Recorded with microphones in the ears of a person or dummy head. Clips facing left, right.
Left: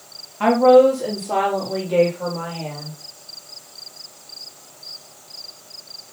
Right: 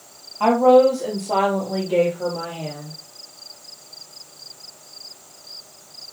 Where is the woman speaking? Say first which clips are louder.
Left 1 dB; 15° left (ahead or behind), 3.5 m; by 2.9 s 20° right (ahead or behind), 4 m.